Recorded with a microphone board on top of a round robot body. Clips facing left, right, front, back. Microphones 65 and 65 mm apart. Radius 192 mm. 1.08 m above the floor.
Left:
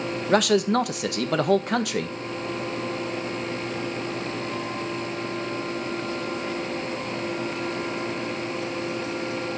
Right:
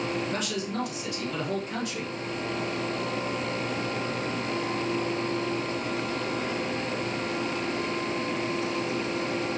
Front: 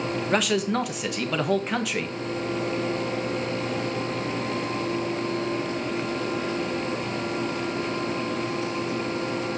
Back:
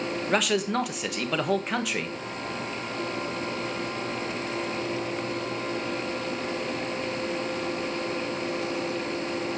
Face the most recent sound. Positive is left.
turn(degrees=90)